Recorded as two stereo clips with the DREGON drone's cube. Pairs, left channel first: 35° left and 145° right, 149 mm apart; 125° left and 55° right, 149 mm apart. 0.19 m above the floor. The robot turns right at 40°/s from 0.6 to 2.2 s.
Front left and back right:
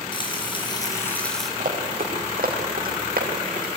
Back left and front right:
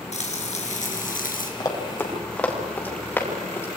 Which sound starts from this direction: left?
Frying, at 0.1 s.